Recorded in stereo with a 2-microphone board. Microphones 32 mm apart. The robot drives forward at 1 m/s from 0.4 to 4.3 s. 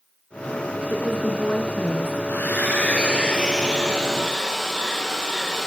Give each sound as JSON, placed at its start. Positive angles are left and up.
{"t": 0.9, "sound": "a woman speaking", "side_deg": 75, "distance_m": 3.5}
{"t": 2.3, "sound": "a hair dryer", "side_deg": 75, "distance_m": 0.7}